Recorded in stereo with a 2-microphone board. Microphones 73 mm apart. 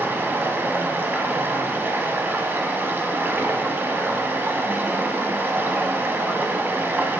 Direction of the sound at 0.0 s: 30° right (ahead or behind).